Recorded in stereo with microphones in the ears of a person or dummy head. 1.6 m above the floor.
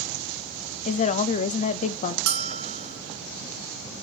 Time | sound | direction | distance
0.8 | a woman speaking | 35° left (ahead or behind) | 0.5 m
2.3 | a bell | 85° right | 0.9 m